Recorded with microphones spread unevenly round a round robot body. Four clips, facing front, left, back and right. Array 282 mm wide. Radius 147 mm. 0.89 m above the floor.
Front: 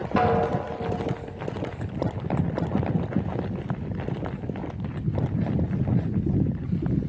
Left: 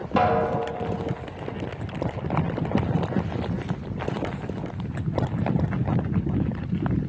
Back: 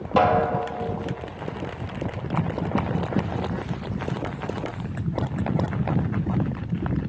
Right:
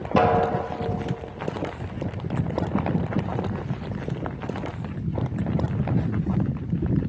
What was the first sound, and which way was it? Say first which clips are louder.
A snare drum: right 1 dB, back 3 dB; 160° right.